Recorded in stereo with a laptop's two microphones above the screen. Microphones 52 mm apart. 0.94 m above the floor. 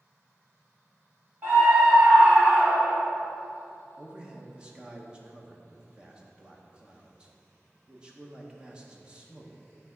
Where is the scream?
35° right (ahead or behind), 2.5 m; by 3.1 s 15° right (ahead or behind), 1.6 m.